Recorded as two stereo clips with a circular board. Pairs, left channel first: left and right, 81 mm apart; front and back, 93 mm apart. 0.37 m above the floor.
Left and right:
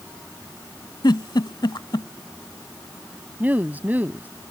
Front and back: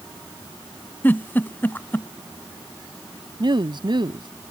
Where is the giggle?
70° left.